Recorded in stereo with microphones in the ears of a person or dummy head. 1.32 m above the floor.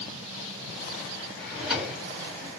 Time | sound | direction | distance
1.4 | a drawer | 5° right (ahead or behind) | 1.1 m